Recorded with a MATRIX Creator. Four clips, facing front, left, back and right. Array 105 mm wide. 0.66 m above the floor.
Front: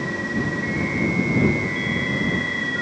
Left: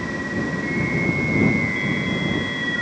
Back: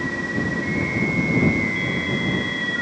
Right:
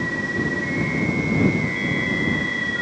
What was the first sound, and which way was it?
Only background noise.